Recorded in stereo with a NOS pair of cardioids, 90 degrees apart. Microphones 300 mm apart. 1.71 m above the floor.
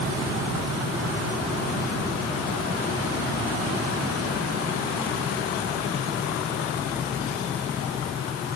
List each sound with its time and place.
Only background noise.